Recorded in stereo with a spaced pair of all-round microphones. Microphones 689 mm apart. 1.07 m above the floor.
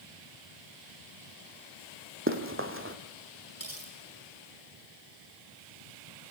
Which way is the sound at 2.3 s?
15° right (ahead or behind).